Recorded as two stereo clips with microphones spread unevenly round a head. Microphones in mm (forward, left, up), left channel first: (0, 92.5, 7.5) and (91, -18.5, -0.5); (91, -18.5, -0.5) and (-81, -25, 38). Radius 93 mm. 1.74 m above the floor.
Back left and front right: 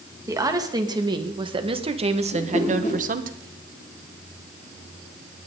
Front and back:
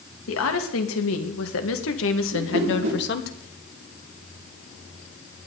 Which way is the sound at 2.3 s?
175° right.